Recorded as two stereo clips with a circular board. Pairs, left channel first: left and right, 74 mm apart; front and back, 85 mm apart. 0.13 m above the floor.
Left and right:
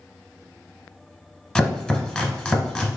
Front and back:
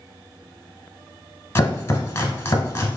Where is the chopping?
25° left, 1.0 m.